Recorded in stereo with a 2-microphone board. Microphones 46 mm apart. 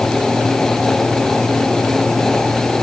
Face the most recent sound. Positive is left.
No sound to turn to.